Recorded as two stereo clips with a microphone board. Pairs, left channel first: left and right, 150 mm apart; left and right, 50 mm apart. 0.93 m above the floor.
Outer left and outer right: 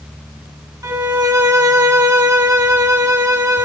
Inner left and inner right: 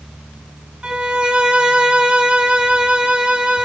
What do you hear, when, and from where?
0.8 s a violin: 25° right (ahead or behind), 0.9 m